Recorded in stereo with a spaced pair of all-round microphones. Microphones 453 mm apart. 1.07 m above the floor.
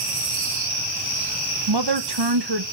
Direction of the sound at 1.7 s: 55° right (ahead or behind).